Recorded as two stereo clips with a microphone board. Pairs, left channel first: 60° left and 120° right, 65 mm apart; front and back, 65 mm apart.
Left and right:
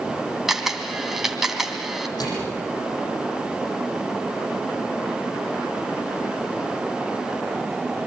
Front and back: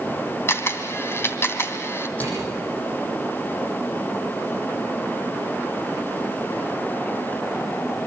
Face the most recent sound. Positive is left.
turn(degrees=65)